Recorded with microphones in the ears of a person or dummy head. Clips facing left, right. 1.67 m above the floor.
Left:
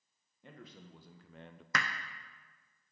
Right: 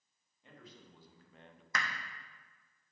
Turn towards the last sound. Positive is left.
turn(degrees=50)  # may be behind; listen again after turning